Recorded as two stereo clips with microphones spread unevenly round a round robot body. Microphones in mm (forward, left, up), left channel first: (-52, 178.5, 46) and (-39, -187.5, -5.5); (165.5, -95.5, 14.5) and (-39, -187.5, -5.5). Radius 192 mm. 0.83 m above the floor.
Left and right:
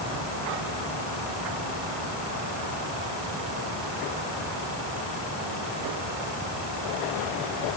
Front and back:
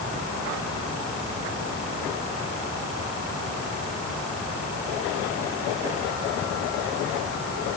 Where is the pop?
I don't hear a pop.